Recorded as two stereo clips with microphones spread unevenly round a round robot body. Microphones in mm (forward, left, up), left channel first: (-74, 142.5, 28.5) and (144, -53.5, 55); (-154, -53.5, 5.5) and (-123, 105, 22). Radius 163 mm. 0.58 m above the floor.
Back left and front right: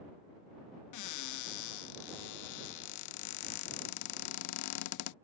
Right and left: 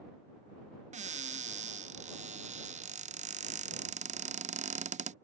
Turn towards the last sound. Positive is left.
turn(degrees=130)